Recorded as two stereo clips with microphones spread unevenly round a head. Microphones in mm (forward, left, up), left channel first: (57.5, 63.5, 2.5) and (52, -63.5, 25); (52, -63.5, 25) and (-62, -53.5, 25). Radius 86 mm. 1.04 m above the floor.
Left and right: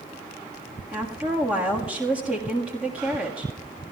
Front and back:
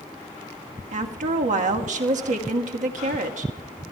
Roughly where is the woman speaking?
Behind.